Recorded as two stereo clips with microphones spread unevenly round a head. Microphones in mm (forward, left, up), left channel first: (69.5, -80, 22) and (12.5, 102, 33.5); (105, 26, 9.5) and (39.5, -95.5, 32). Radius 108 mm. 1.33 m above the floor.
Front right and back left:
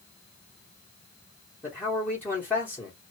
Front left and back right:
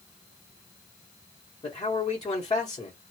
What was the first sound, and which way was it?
A man speaking, 5° left.